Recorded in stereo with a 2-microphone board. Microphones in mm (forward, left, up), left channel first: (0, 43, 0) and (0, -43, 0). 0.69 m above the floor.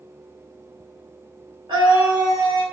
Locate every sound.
1.7 s a scream: 80° right, 3.5 m